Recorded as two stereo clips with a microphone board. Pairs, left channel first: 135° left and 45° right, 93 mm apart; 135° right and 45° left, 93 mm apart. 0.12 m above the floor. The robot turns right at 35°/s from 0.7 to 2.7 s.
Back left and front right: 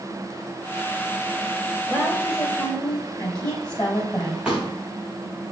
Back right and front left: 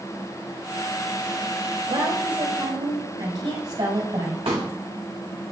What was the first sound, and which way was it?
A woman speaking, 35° left.